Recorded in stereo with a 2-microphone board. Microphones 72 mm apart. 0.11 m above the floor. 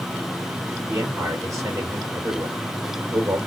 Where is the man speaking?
45° right (ahead or behind), 2.5 m.